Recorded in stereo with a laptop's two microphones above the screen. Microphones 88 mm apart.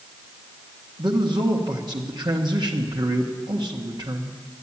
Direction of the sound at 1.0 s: 55° right (ahead or behind).